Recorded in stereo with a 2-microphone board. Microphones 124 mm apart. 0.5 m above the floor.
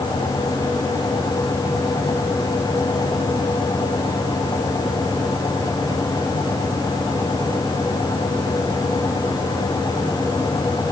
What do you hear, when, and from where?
Only background noise.